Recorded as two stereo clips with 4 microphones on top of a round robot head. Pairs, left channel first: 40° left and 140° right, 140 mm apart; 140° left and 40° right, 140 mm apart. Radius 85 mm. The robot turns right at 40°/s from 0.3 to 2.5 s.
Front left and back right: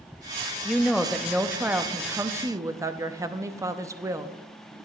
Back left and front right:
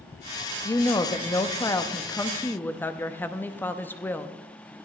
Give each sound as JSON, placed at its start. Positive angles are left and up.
{"t": 0.7, "sound": "a woman speaking", "azimuth_deg": 120, "distance_m": 0.7}